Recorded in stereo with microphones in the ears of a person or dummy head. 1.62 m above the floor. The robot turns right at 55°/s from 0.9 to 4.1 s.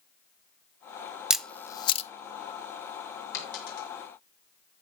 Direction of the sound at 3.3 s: 65° left (ahead or behind).